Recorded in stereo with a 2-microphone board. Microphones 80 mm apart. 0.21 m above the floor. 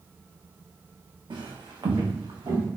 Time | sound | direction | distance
1.3 | footsteps | 70° right (ahead or behind) | 0.8 m